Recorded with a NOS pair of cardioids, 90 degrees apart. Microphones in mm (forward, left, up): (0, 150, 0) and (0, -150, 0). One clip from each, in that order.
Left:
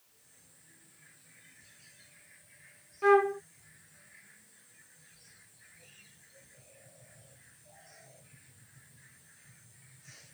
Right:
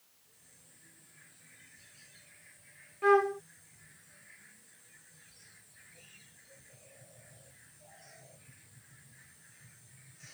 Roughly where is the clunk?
No clunk in this recording.